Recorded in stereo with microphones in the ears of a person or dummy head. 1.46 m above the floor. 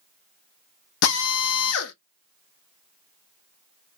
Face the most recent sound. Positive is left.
turn(degrees=75)  # may be behind; listen again after turning